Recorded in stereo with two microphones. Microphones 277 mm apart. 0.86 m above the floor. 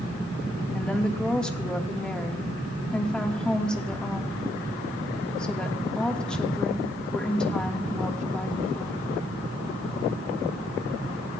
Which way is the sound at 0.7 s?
5° left (ahead or behind).